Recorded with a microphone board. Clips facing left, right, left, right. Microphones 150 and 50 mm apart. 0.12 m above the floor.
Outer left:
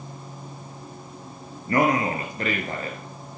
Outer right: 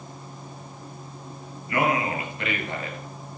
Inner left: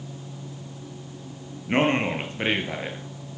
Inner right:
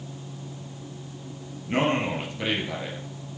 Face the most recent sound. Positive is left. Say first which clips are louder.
# outer left 3 dB, inner left 2 dB
turn(degrees=40)  # may be behind; listen again after turning